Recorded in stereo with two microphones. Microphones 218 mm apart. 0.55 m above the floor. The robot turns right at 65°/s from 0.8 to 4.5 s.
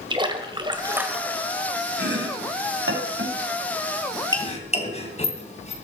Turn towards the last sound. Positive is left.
turn(degrees=30)  # may be behind; listen again after turning